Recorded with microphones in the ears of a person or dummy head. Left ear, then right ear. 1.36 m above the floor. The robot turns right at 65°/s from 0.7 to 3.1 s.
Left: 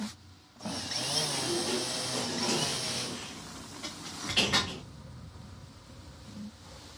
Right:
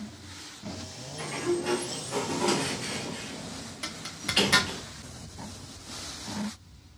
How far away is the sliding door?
About 1.1 m.